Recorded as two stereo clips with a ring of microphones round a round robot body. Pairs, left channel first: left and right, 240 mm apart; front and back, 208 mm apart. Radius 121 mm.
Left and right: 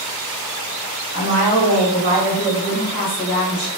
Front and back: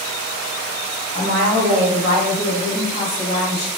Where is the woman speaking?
145° right, 1.1 m; by 3.7 s straight ahead, 1.0 m.